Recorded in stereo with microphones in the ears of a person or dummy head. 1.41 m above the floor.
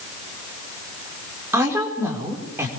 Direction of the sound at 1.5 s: 15° right (ahead or behind).